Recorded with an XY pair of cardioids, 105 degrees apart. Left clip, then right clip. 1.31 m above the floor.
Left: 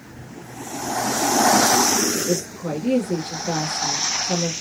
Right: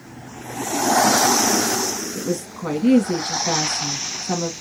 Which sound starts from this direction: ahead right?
A woman speaking, at 2.1 s.